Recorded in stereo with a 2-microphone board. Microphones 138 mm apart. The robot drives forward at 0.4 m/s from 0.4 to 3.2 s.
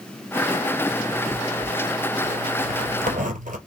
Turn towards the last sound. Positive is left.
turn(degrees=-65)  # may be behind; listen again after turning